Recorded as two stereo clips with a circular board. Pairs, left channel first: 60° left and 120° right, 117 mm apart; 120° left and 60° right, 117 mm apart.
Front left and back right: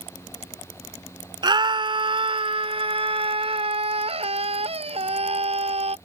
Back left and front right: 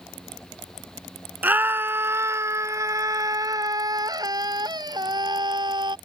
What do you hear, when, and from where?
1.4 s a scream: 125° right; by 6.0 s 105° right